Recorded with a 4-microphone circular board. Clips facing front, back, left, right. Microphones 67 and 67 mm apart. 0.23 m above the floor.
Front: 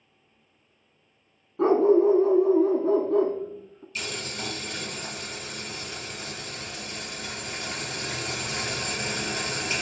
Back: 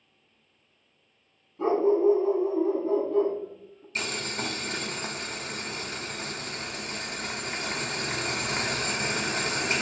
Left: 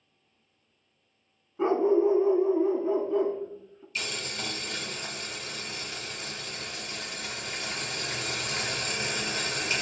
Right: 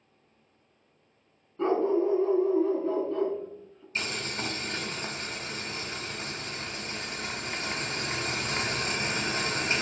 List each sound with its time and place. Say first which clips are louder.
1.6 s a dog barking: front 4 dB, left 2 dB; 10° left, 0.6 m
4.0 s boiling: back 2 dB, right 2 dB; 140° right, 0.6 m